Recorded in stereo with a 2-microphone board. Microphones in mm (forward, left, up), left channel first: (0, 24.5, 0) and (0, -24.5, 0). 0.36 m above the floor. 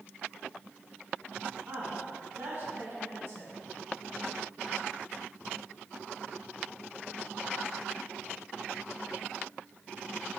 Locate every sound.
1.7 s a woman speaking: 55° right (ahead or behind), 2.5 m